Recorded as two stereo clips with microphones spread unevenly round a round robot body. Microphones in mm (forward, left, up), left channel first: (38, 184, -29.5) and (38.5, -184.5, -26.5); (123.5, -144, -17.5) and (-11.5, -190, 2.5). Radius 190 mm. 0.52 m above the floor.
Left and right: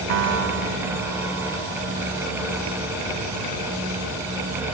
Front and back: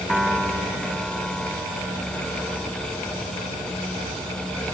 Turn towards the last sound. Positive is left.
turn(degrees=-70)